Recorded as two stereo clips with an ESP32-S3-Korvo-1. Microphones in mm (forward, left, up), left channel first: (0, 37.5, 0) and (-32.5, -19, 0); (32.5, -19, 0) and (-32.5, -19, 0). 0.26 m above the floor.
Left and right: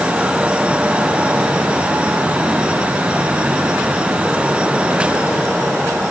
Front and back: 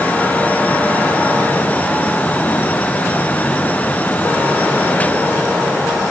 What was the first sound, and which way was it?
Only background noise.